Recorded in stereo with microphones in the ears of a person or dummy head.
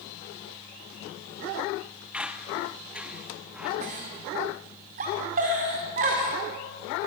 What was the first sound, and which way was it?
A squeak, 5° right (ahead or behind).